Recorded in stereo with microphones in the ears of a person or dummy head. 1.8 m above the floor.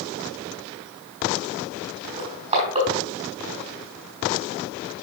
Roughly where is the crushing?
Right.